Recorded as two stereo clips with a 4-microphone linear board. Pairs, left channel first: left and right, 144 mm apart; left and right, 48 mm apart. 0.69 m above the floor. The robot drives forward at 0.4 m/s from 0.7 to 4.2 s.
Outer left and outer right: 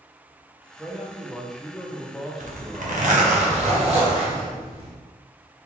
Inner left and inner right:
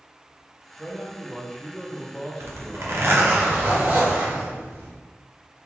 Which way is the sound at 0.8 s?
Centre (ahead or behind).